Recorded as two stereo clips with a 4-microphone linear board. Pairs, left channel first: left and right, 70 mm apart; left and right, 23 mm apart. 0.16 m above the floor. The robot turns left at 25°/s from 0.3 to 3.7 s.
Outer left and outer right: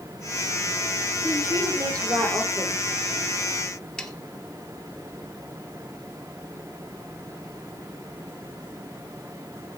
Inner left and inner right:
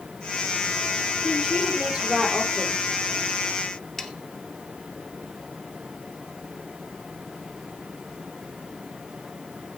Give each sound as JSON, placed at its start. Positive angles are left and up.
{"t": 1.2, "sound": "a woman speaking", "azimuth_deg": -45, "distance_m": 6.5}
{"t": 4.0, "sound": "sawing", "side_deg": 10, "distance_m": 1.4}